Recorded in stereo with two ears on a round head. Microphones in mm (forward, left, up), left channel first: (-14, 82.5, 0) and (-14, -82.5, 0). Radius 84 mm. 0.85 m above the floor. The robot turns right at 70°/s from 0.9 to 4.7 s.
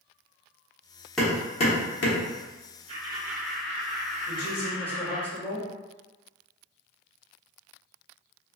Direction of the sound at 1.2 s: Centre (ahead or behind).